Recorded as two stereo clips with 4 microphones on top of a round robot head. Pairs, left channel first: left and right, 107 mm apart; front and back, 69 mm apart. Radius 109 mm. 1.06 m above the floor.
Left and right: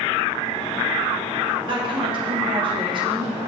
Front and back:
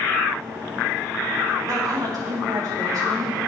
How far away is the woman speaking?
About 2.5 m.